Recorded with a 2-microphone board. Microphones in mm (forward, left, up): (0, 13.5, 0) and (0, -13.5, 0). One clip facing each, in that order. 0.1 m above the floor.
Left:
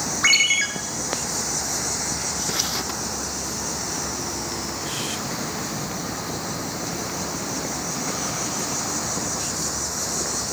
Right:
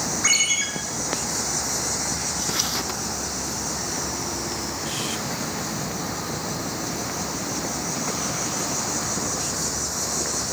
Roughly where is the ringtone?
Left.